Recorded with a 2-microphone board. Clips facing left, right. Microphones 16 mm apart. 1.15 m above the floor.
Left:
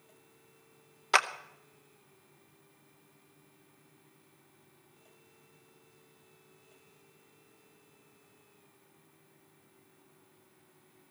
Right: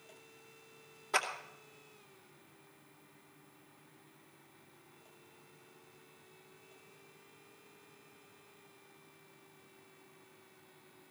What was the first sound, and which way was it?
A clap, 70° left (ahead or behind).